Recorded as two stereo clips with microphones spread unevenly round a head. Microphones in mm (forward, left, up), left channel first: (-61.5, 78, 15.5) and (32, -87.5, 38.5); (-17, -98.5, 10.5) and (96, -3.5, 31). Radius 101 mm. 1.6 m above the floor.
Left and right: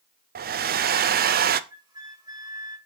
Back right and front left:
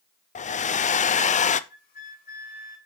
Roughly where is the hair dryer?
Right.